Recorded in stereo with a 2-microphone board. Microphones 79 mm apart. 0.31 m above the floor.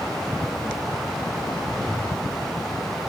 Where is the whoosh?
5° left (ahead or behind), 5.5 m.